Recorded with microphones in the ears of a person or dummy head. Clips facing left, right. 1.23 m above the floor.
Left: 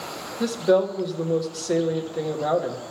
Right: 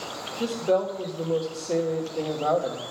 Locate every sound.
0.4 s a woman speaking: 10° left (ahead or behind), 1.2 m